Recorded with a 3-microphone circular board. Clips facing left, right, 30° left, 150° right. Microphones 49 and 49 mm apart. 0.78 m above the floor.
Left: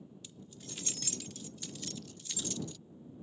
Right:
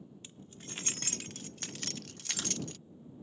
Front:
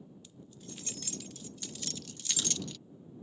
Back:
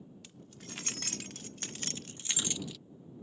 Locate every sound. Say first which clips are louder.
0.2 s keys jangling: right 1 dB, even; 145° right; by 2.8 s 65° right